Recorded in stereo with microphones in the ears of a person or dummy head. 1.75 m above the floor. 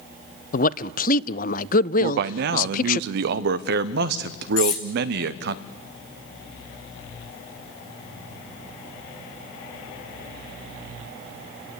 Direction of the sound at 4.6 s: 45° left (ahead or behind).